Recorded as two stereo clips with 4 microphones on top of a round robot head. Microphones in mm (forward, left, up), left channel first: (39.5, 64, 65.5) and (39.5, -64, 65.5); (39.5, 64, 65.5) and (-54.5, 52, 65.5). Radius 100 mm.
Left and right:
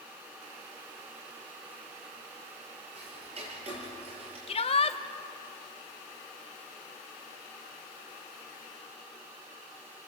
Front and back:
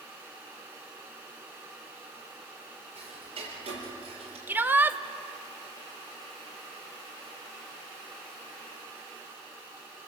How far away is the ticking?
About 6.5 m.